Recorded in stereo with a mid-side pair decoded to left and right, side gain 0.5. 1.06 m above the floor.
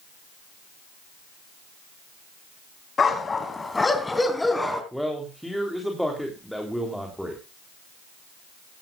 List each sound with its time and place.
3.0 s a dog barking: 35° left, 2.5 m; by 4.8 s 5° left, 3.5 m
4.9 s a man speaking: straight ahead, 3.5 m